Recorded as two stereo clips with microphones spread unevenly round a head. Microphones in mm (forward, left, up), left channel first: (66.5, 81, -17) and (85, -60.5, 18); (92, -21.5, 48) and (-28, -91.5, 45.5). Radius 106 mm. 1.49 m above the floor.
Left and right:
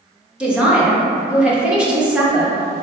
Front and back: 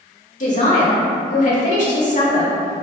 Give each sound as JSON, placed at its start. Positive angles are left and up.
{"t": 0.4, "sound": "a man speaking", "azimuth_deg": -5, "distance_m": 1.6}